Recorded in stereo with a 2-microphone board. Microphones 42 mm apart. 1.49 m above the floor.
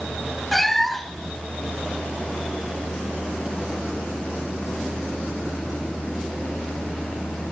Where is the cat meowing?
5° left (ahead or behind), 1.1 m.